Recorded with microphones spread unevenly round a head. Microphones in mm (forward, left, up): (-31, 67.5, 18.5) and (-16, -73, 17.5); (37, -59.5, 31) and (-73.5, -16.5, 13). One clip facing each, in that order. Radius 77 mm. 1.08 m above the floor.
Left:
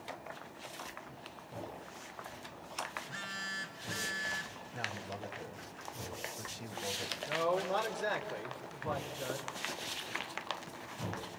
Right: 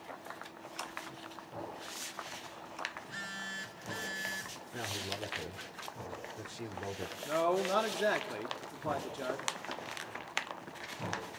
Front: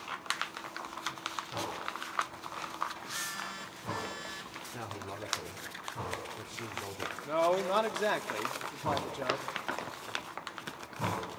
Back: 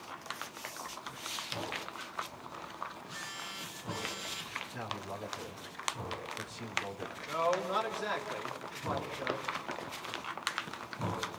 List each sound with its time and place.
3.0 s a phone buzzing: 130° right, 3 m
4.7 s a man speaking: 90° right, 4.5 m
7.2 s a man speaking: 55° right, 3 m